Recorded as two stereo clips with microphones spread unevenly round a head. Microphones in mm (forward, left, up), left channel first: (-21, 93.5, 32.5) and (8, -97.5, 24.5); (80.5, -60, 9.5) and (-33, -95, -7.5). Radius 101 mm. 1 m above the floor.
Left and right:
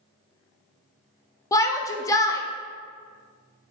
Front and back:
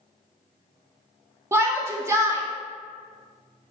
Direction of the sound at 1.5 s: 165° left.